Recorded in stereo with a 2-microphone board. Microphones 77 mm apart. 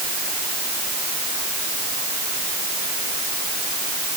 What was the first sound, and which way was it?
Only background noise.